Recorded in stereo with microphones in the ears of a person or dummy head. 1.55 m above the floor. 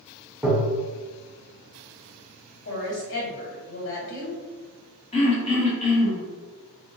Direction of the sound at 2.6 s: 65° left (ahead or behind).